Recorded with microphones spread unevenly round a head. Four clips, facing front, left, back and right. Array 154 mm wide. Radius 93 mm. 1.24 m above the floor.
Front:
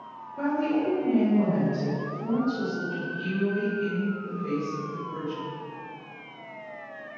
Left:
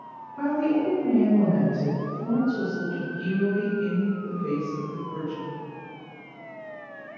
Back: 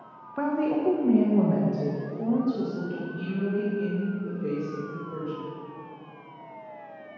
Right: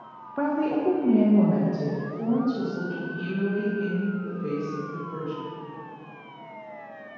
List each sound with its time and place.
0.4 s a woman speaking: 115° right, 1.0 m; by 5.4 s straight behind, 3.5 m